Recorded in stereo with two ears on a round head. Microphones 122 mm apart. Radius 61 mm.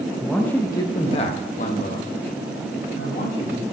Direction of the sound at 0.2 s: 5° right (ahead or behind).